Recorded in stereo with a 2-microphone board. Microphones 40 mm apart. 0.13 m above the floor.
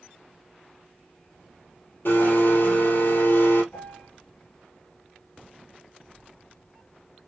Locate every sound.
2.0 s a blender: 70° left (ahead or behind), 2.5 m
3.7 s a piano: 45° left (ahead or behind), 2 m